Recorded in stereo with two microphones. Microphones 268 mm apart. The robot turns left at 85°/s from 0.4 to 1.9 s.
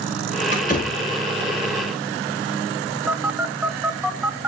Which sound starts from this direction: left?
A door slam, at 0.5 s.